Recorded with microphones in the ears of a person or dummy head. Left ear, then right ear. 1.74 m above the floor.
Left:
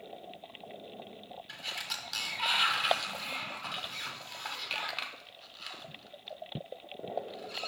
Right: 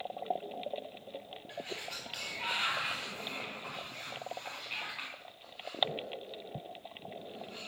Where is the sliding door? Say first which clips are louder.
Left 4 dB; 50° left (ahead or behind), 1.0 m.